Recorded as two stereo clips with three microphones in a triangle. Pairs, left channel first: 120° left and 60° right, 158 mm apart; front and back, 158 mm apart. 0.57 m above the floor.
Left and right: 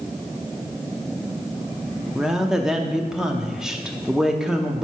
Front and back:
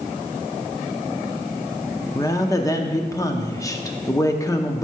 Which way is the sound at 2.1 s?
20° left.